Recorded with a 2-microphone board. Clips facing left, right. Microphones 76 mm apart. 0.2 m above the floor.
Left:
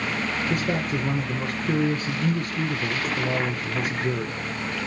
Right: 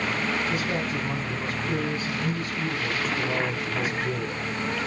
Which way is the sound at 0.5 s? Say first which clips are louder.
Left 2 dB; 55° left (ahead or behind).